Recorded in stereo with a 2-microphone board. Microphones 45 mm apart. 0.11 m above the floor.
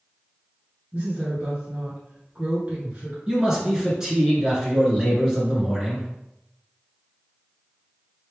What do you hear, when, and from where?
0.9 s a woman speaking: 30° right (ahead or behind), 1.4 m
3.3 s a man speaking: 15° right (ahead or behind), 1.5 m